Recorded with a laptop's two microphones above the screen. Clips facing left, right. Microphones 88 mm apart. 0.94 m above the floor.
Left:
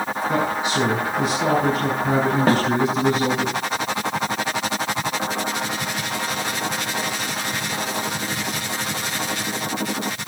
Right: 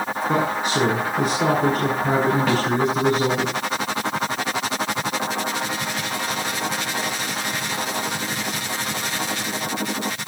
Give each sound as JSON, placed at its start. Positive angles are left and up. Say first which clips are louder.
{"t": 0.3, "sound": "a man speaking", "louder": "right 1 dB", "side_deg": -50, "distance_m": 8.0}
{"t": 2.5, "sound": "a snare drum", "louder": "left 3 dB", "side_deg": 40, "distance_m": 1.4}